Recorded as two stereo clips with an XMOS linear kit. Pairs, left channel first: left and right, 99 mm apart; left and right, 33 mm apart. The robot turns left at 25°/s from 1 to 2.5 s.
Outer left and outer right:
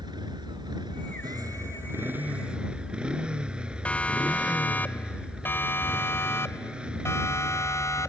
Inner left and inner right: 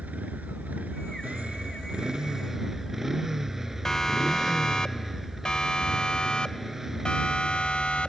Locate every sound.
0.0 s a motorcycle: 135° right; by 8.1 s 170° right
3.9 s a siren: 15° left (ahead or behind); by 8.1 s 30° left (ahead or behind)